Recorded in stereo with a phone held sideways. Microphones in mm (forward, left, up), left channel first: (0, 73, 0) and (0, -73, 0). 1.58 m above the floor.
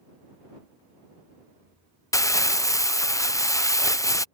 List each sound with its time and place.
2.1 s crumpling: 20° left (ahead or behind)